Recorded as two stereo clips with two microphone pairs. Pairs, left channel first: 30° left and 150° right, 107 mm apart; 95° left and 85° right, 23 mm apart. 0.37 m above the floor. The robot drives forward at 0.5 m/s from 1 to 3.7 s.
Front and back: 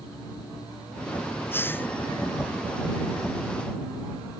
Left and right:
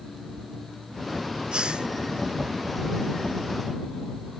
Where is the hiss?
40° right.